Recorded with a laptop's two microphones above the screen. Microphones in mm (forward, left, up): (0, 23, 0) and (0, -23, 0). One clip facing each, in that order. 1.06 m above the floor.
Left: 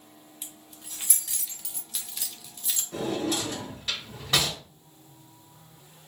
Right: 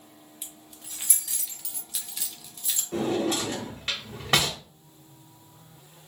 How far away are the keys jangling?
About 0.7 m.